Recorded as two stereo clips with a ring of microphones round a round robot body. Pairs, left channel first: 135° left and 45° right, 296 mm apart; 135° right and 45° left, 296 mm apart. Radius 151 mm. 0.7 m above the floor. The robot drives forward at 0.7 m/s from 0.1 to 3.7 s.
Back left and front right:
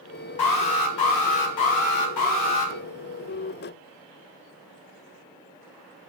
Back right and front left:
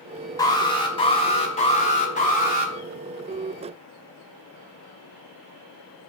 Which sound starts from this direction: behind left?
An alarm, at 0.4 s.